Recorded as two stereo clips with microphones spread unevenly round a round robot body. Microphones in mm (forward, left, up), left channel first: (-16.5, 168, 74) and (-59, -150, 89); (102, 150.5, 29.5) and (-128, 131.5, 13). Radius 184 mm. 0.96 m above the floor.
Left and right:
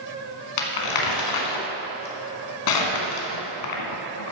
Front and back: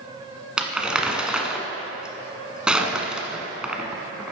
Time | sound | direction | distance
0.6 | crumpling | 95° left | 1.6 m